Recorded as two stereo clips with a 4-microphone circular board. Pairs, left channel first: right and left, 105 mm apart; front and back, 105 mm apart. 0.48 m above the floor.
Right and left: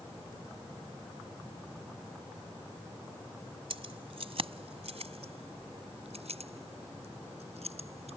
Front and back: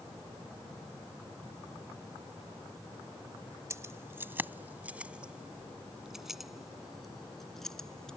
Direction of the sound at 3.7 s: 120° left.